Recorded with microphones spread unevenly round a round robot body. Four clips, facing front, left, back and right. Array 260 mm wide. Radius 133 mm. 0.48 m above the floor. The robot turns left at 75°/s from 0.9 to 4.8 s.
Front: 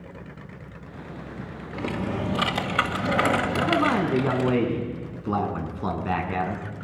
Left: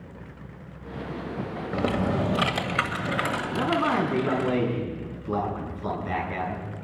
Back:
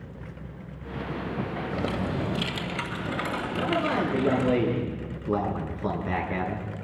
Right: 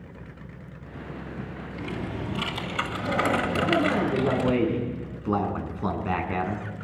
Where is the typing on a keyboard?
110° left, 2 m; by 4.5 s 100° right, 2 m.